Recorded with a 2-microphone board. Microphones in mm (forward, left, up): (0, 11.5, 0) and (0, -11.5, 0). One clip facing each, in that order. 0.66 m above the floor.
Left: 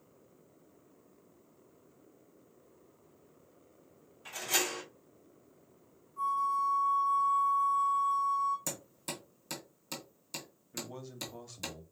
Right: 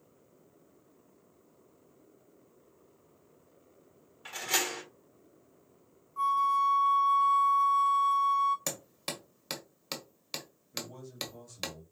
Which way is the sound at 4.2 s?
35° right (ahead or behind).